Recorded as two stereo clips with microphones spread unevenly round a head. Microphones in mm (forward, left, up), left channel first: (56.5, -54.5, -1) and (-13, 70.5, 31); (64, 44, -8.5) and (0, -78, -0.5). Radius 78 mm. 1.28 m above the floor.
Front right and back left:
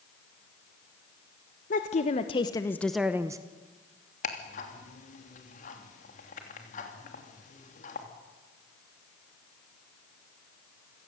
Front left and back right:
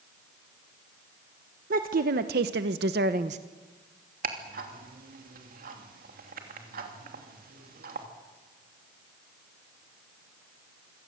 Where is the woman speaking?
95° right, 1.4 m; by 3.4 s 170° right, 1.0 m.